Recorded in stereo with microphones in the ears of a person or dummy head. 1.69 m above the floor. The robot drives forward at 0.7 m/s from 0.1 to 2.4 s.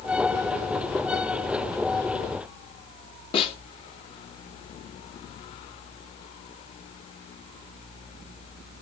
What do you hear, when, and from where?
3.3 s a snare drum: 45° left (ahead or behind), 2.5 m